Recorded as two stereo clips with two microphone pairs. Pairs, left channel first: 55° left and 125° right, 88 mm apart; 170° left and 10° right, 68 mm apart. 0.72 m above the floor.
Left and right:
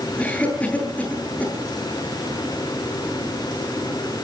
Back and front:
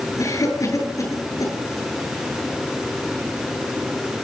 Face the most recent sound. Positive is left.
turn(degrees=130)